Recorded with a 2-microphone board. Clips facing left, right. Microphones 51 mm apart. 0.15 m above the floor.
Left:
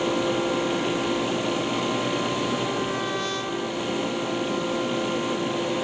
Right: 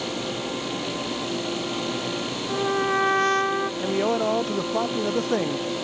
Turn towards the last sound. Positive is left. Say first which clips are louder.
# right 6 dB
turn(degrees=-70)  # may be behind; listen again after turning